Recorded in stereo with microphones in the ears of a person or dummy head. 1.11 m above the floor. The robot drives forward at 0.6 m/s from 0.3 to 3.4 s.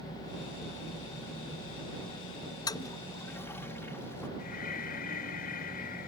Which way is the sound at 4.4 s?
45° left (ahead or behind).